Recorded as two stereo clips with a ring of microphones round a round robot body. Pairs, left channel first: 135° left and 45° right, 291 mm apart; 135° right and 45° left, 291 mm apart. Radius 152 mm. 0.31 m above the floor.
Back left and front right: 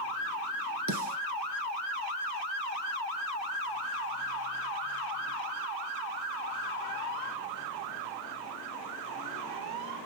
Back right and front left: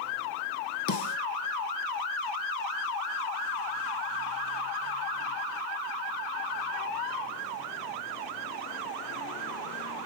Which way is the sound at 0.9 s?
90° right.